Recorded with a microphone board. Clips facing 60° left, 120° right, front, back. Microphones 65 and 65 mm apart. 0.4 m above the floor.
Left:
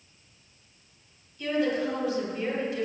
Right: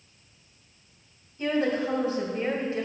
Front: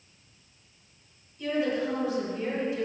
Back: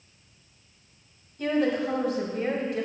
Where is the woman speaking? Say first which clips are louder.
Right 1 dB, back 3 dB; 170° right, 1.8 m.